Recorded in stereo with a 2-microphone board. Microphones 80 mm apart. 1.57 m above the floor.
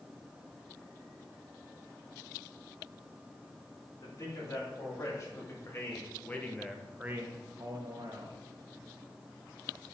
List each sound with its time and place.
4.0 s a man speaking: 45° left (ahead or behind), 3.5 m; by 8.4 s 65° right (ahead or behind), 1.5 m